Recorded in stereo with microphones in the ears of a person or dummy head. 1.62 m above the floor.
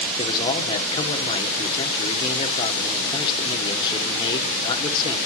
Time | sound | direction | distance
0.2 | a man speaking | 25° left (ahead or behind) | 1.7 m